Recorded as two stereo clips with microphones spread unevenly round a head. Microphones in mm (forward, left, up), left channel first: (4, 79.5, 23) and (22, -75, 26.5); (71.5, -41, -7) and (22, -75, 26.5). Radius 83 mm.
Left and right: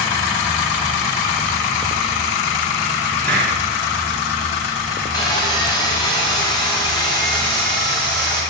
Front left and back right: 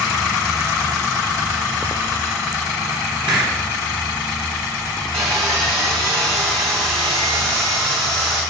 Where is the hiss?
Straight behind, 3 m.